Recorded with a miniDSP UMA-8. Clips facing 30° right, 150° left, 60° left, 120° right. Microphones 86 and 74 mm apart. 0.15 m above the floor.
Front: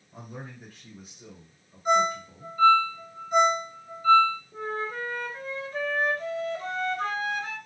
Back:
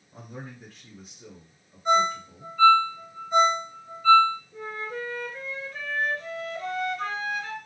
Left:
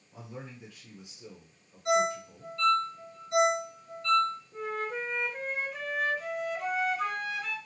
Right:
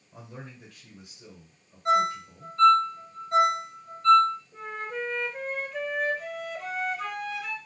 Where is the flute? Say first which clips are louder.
Front 2 dB, left 1 dB; 10° right, 0.8 m.